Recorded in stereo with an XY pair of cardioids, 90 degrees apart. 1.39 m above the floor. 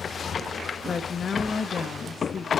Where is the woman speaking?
50° left, 0.8 m.